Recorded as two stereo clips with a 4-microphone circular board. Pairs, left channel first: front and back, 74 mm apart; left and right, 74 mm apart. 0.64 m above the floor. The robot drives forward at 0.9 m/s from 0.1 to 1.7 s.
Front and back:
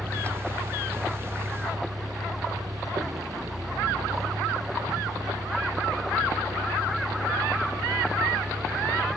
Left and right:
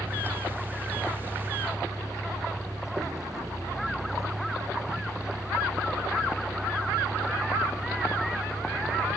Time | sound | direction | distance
0.0 | a vehicle | 135° right | ?